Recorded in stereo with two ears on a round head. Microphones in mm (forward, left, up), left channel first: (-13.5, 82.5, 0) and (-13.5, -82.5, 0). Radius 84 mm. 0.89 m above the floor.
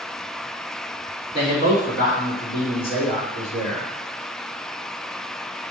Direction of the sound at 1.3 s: 50° left (ahead or behind).